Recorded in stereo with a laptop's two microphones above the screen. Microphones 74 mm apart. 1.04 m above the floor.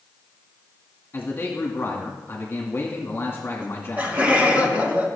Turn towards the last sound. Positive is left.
turn(degrees=-25)  # may be behind; listen again after turning